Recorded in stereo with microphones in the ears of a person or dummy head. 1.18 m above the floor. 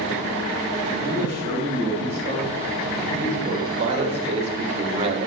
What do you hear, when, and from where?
1.0 s a man speaking: 40° right (ahead or behind), 7.5 m; by 5.3 s 35° right (ahead or behind), 1.9 m